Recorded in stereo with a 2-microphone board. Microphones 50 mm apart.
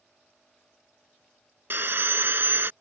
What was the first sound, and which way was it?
Sawing, 50° right (ahead or behind).